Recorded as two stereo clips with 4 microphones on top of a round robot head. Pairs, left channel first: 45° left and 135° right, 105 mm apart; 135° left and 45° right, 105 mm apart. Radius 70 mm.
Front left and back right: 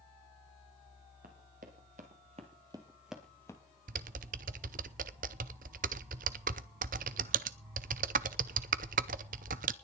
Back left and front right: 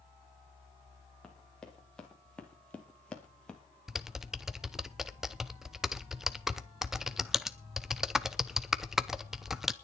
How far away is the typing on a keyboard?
About 0.7 m.